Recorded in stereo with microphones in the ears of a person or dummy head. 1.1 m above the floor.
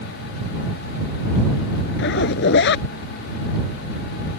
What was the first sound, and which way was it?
A zipper, 65° left (ahead or behind).